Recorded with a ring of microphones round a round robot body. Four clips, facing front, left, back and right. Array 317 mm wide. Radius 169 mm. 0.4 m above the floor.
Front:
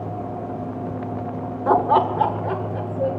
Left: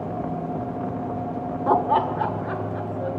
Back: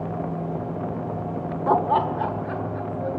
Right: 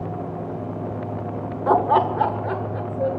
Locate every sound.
1.7 s laughter: 45° right, 0.8 m; by 3.2 s 40° right, 2 m